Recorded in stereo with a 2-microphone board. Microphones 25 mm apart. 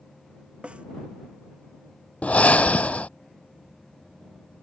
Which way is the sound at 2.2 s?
75° left (ahead or behind).